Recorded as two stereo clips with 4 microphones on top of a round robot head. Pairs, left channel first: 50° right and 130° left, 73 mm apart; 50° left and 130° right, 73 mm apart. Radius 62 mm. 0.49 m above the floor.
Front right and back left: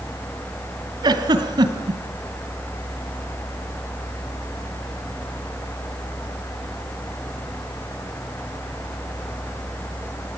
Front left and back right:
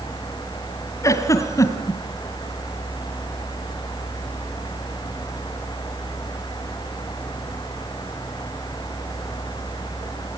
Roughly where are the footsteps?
I don't hear footsteps.